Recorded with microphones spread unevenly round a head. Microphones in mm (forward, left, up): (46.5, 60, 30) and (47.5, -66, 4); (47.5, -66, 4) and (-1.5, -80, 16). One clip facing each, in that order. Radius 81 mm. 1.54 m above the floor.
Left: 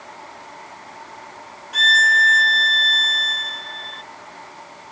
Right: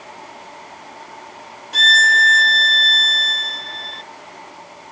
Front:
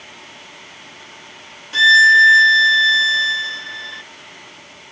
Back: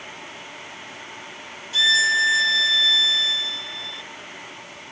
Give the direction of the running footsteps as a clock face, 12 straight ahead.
I don't hear running footsteps.